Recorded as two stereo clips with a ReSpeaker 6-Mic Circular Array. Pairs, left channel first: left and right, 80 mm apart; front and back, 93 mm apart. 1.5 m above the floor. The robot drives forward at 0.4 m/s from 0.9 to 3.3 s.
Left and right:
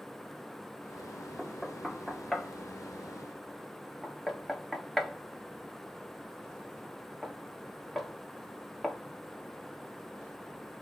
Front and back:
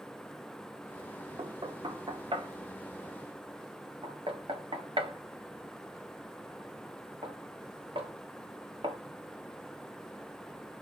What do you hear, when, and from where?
1.4 s knocking: straight behind, 0.6 m